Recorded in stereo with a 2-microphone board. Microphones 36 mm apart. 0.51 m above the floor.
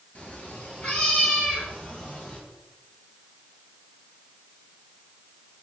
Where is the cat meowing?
40° left (ahead or behind), 2 m; by 2.4 s 45° left (ahead or behind), 3 m.